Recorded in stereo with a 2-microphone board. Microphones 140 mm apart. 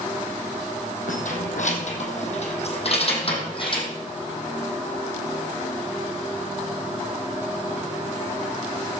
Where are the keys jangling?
65° left (ahead or behind), 3.5 m; by 3.9 s 35° left (ahead or behind), 3.5 m.